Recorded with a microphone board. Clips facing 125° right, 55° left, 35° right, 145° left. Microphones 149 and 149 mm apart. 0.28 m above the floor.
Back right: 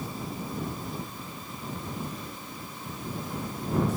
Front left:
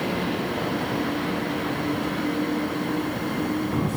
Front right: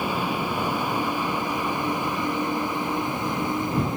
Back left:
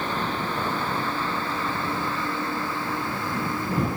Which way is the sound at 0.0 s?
45° left.